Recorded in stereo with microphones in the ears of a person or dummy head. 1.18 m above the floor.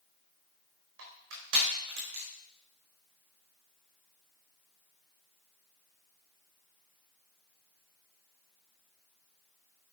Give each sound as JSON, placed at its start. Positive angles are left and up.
{"t": 1.0, "sound": "crushing", "side_deg": -70, "distance_m": 5.0}